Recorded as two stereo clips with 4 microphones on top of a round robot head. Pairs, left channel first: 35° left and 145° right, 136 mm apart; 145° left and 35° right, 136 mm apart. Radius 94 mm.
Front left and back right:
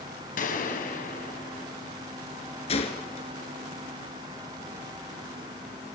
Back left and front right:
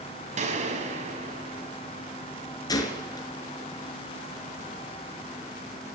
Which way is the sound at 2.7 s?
85° left.